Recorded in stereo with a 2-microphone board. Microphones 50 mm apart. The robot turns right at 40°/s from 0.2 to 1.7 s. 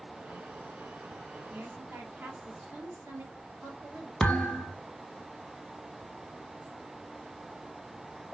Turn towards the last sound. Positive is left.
turn(degrees=5)  # may be behind; listen again after turning